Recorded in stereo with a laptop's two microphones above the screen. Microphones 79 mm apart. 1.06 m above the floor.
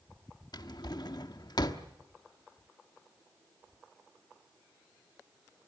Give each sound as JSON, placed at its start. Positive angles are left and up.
{"t": 0.5, "sound": "a drawer", "side_deg": 60, "distance_m": 1.0}